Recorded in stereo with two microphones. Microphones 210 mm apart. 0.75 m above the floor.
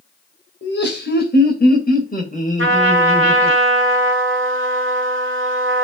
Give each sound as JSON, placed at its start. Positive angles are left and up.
{"t": 0.6, "sound": "laughter", "side_deg": 60, "distance_m": 3.0}
{"t": 2.6, "sound": "a trumpet", "side_deg": -85, "distance_m": 1.5}